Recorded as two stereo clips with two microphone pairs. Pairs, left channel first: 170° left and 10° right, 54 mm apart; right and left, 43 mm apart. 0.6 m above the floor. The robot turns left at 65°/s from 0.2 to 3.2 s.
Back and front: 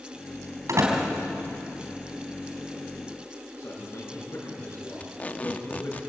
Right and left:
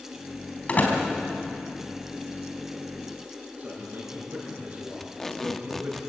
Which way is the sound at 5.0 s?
160° right.